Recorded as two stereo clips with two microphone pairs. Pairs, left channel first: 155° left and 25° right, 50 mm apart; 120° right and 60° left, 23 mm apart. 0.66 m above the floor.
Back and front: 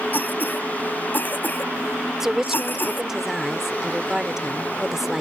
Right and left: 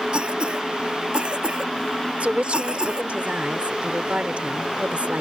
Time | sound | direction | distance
0.1 | a cough | 105° left | ?
2.2 | a woman speaking | 60° left | ?